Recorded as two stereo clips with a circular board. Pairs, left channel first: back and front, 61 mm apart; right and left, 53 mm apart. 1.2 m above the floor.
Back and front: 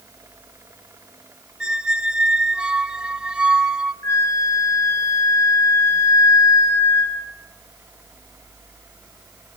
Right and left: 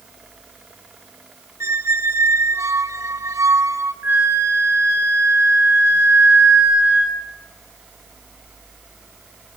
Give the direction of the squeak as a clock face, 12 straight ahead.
9 o'clock.